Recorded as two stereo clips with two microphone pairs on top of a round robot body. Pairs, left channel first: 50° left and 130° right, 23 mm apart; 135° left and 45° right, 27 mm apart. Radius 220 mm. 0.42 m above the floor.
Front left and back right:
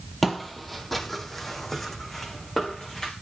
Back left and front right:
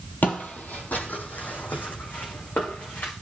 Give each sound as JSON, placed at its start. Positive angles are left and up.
{"t": 0.2, "sound": "footsteps", "azimuth_deg": 150, "distance_m": 0.7}